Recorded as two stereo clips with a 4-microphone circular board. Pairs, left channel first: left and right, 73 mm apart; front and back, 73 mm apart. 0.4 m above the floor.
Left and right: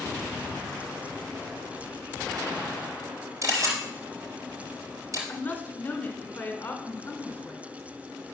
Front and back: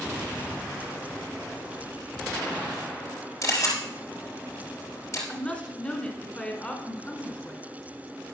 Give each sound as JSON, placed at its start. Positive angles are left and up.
{"t": 3.4, "sound": "a camera shutter", "azimuth_deg": -50, "distance_m": 3.5}
{"t": 5.3, "sound": "a woman speaking", "azimuth_deg": 55, "distance_m": 1.4}